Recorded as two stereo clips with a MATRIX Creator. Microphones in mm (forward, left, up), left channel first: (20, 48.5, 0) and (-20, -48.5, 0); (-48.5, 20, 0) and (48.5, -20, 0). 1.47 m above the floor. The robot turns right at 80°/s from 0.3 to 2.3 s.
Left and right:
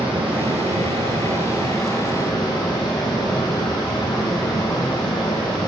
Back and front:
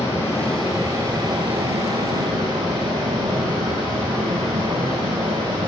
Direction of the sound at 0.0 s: 135° right.